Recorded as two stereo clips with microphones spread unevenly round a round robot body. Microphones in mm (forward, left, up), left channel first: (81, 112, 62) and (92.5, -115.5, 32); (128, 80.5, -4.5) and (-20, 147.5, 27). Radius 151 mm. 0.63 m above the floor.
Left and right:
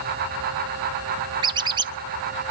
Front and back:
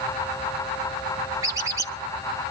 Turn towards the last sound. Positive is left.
turn(degrees=-125)